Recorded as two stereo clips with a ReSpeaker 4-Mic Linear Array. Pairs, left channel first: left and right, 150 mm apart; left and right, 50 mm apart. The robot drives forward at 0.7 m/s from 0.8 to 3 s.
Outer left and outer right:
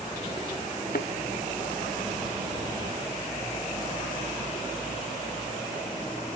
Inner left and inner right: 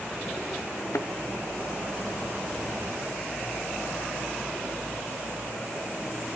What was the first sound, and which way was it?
A thud, 85° left.